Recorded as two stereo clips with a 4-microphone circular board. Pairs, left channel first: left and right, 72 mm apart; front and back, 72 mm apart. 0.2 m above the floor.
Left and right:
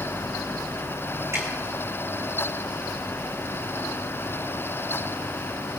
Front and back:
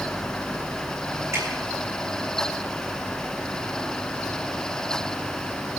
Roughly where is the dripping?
Behind right.